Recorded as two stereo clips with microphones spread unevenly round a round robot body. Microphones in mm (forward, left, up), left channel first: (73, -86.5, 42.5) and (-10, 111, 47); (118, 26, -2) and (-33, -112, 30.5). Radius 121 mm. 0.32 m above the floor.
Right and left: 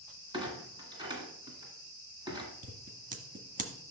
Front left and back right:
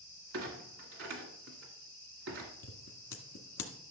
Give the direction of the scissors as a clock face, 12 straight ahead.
10 o'clock.